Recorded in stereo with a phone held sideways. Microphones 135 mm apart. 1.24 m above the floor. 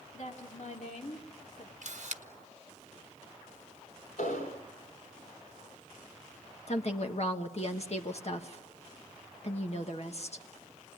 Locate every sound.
0.1 s a woman speaking: 65° left (ahead or behind), 2.5 m
1.8 s a camera shutter: 60° right (ahead or behind), 1.2 m
4.2 s an explosion: 80° left, 4 m
6.7 s a woman speaking: 50° left (ahead or behind), 1.2 m